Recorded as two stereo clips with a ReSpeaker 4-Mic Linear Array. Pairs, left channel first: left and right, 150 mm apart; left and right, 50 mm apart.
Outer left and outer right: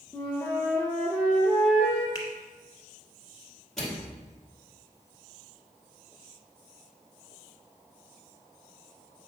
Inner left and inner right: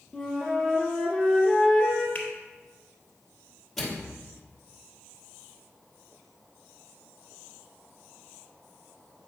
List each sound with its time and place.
0.1 s a flute: 10° left (ahead or behind), 2.5 m
2.1 s a finger snap: 25° left (ahead or behind), 1.7 m
3.8 s a microwave: centre (ahead or behind), 2 m